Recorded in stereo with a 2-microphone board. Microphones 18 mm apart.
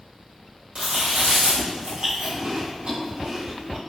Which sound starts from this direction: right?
Chewing, at 0.8 s.